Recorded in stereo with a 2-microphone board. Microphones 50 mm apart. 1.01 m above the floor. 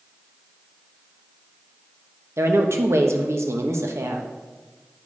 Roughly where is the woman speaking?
Right.